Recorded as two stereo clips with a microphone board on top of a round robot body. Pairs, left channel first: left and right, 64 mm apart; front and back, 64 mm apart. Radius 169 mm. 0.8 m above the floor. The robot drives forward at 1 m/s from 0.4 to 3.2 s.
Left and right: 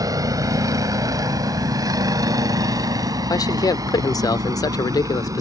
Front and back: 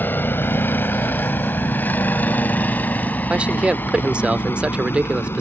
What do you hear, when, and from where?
0.0 s a vehicle: 65° right; by 5.4 s 55° right
3.3 s a man speaking: 105° left